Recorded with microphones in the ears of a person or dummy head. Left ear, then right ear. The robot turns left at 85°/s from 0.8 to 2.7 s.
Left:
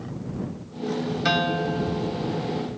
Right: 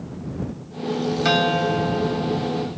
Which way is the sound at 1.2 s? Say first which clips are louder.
Right 4 dB; 5° left.